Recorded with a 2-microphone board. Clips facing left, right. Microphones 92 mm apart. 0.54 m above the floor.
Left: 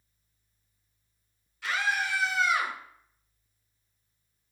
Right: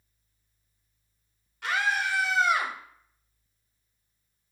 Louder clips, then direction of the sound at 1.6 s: Right 2 dB; 60° right (ahead or behind).